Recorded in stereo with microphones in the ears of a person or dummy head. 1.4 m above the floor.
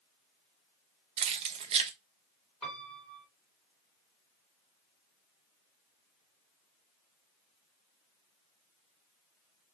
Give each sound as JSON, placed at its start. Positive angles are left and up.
{"t": 1.2, "sound": "keys jangling", "side_deg": -25, "distance_m": 0.7}
{"t": 2.6, "sound": "a piano", "side_deg": 5, "distance_m": 2.0}